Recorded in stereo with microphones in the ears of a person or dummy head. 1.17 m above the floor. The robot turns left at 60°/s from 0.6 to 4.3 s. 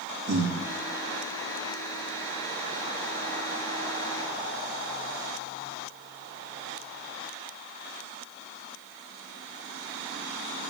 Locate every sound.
0.3 s breathing: 75° right (ahead or behind), 2.5 m